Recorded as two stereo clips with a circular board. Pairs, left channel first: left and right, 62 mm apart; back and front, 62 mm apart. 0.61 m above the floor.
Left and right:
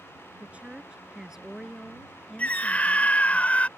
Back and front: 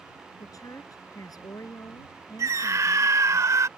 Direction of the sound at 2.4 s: 25° left.